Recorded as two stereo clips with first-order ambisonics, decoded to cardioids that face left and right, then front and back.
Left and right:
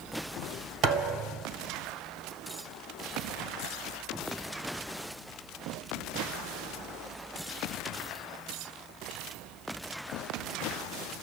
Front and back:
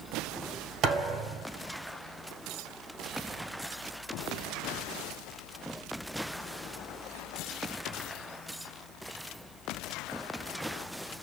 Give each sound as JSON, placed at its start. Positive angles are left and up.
{"t": 0.8, "sound": "a thud", "azimuth_deg": -135, "distance_m": 1.9}